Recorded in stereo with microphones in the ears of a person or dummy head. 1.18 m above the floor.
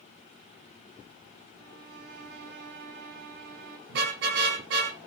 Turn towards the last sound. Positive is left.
turn(degrees=-60)  # may be behind; listen again after turning